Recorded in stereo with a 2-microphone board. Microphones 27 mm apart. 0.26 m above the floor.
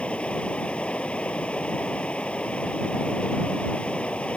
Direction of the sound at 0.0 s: 50° left (ahead or behind).